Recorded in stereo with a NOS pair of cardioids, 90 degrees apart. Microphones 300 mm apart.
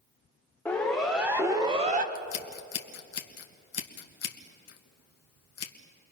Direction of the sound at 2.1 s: 55° left.